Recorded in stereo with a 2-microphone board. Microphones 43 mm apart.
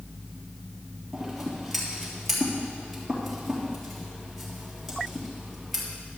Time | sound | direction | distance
1.1 | scissors | 5° right (ahead or behind) | 3.5 m